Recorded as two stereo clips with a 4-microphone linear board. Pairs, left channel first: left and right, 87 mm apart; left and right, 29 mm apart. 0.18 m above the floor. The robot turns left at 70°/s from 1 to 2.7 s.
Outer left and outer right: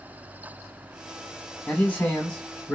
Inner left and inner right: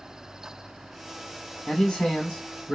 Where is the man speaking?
20° left (ahead or behind), 1.2 m; by 2.8 s 5° left (ahead or behind), 1.2 m.